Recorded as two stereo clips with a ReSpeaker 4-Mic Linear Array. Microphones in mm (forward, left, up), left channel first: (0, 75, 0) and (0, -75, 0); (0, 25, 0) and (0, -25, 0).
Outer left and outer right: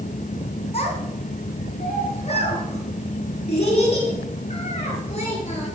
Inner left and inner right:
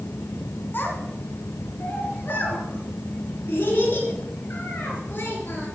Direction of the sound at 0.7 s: 45° left (ahead or behind).